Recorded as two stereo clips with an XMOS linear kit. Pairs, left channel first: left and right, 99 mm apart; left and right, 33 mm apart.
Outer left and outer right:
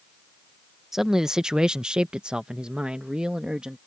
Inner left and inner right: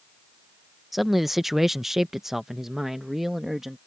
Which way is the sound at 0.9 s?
5° right (ahead or behind).